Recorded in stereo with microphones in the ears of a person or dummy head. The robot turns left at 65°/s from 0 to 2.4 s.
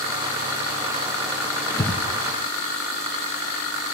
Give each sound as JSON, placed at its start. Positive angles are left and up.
{"t": 1.7, "sound": "breathing", "side_deg": 20, "distance_m": 1.7}